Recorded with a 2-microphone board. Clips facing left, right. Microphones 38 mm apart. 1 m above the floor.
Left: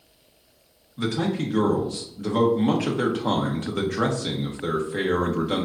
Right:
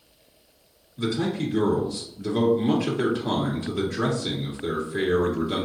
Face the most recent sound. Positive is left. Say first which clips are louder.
# left 1 dB
turn(degrees=55)  # may be behind; listen again after turning